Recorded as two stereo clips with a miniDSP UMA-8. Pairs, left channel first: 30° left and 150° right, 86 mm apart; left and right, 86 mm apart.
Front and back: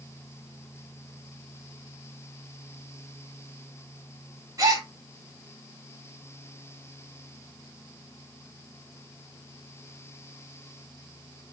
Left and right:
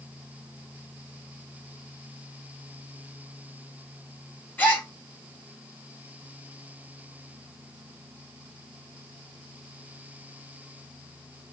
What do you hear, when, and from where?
4.6 s a gasp: 160° left, 1.7 m